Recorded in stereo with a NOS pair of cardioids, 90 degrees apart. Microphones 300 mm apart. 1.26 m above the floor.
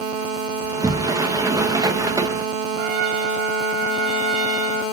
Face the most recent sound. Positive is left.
turn(degrees=-55)